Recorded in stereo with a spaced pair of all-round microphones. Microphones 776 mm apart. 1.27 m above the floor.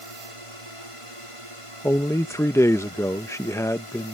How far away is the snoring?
I don't hear snoring.